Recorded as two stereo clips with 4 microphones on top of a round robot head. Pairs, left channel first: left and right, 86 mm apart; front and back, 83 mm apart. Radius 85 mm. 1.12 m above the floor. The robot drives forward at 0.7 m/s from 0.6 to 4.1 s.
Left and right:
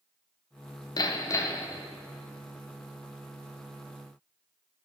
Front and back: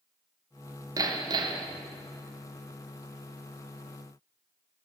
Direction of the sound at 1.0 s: 130° left.